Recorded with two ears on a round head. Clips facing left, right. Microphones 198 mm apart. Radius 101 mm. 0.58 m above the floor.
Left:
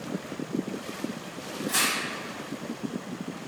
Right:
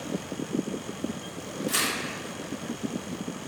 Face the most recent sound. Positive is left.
turn(degrees=-40)  # may be behind; listen again after turning